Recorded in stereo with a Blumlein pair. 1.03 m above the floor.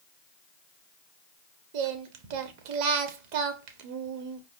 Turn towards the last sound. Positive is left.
turn(degrees=-45)